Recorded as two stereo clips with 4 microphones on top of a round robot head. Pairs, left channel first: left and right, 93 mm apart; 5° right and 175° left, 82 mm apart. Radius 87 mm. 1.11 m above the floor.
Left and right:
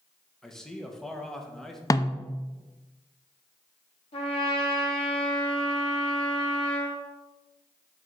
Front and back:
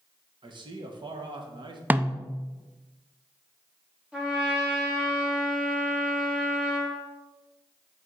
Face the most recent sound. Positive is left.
turn(degrees=100)